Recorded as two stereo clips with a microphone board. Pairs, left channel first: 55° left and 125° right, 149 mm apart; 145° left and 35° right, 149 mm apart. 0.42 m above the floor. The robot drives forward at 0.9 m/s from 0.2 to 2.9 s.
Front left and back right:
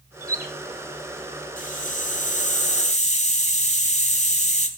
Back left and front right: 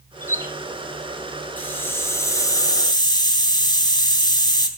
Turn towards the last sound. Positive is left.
turn(degrees=90)